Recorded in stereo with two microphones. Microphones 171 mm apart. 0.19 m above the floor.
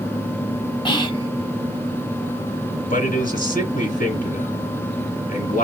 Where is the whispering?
30° left (ahead or behind), 1.2 m.